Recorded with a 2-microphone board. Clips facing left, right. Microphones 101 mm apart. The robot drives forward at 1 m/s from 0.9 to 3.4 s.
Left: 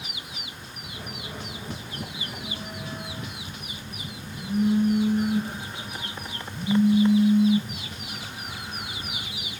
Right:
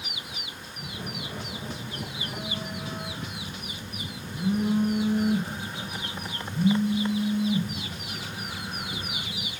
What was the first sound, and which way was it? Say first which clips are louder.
A phone buzzing: right 3 dB; 85° right.